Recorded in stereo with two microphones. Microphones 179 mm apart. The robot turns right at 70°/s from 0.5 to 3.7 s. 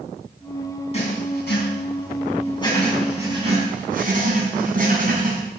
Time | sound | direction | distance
0.9 | writing | 35° left | 4 m